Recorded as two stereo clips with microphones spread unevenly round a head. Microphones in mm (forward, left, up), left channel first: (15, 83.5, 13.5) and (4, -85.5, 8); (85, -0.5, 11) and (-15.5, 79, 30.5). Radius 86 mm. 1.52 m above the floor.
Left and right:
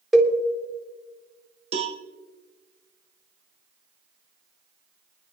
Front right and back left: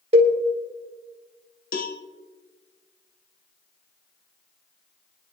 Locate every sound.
0.1 s a cowbell: 175° left, 1.3 m
1.7 s a cowbell: 40° right, 1.4 m